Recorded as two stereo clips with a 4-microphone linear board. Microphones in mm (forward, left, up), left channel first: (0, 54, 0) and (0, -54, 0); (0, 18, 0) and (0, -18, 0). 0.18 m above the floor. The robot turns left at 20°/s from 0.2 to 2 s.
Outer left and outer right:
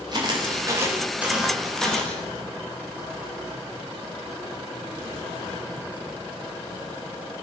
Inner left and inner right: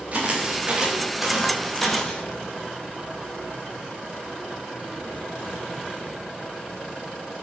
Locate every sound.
0.1 s footsteps: 40° right (ahead or behind), 6.5 m; by 2.2 s 15° left (ahead or behind), 5.5 m